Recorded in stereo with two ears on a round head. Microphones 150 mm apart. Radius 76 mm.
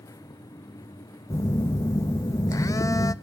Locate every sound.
1.3 s a phone buzzing: 20° left (ahead or behind), 0.5 m